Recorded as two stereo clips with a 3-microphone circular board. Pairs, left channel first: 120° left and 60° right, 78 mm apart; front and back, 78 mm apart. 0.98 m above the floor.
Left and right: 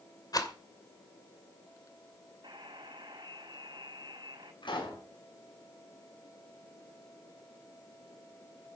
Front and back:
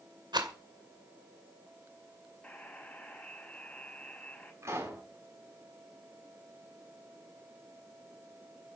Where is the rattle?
155° left, 2.5 m.